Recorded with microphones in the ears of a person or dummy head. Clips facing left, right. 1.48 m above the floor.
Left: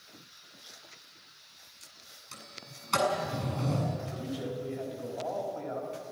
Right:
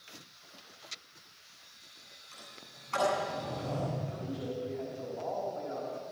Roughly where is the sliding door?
Left.